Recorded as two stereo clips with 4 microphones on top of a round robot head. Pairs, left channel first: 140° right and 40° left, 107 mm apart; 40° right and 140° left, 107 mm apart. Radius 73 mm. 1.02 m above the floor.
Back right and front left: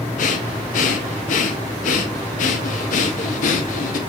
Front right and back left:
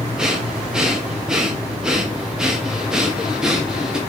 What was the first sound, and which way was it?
Breathing, 135° right.